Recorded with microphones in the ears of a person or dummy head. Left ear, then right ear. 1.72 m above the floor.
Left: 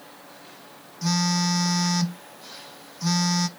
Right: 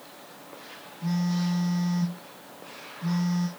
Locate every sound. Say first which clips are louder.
1.0 s a phone buzzing: left 8 dB; 70° left (ahead or behind), 0.8 m